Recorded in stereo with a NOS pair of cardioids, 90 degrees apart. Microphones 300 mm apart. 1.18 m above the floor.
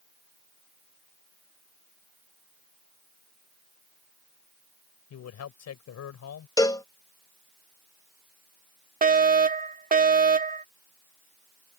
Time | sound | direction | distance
5.1 | a man speaking | 60° left | ?
6.6 | a cowbell | 10° left | ?
9.0 | a fire alarm | 30° right | ?